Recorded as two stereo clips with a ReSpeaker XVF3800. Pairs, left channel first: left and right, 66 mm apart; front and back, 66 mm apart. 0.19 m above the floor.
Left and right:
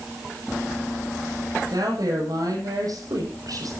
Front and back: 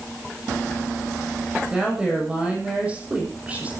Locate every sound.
1.7 s a woman speaking: 105° right, 10 m; by 3.7 s 110° right, 9.5 m